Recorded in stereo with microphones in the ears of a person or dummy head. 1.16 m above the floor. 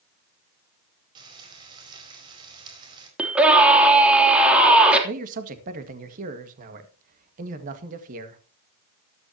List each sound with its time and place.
1.1 s frying: 25° right (ahead or behind), 4.5 m
3.2 s a scream: 10° right (ahead or behind), 3 m
5.0 s a man speaking: 45° right (ahead or behind), 1.9 m